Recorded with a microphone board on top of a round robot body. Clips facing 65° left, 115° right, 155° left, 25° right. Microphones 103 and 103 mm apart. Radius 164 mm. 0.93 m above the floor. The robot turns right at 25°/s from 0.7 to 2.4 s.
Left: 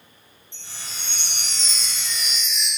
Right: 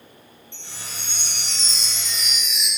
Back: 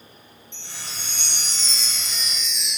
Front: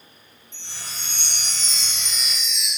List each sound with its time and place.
0.5 s a chime: 75° right, 3 m; by 2.7 s 35° right, 3 m